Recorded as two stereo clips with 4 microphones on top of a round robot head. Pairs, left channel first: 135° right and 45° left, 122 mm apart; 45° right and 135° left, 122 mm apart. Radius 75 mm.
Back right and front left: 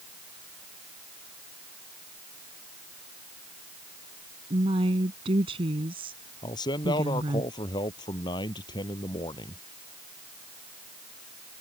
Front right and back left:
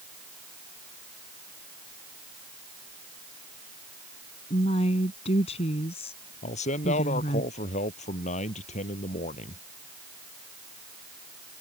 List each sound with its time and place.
4.5 s a woman speaking: 5° right
6.4 s a man speaking: 75° right